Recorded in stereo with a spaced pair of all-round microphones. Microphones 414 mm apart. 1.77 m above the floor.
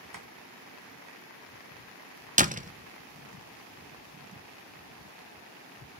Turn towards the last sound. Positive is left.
turn(degrees=-20)  # may be behind; listen again after turning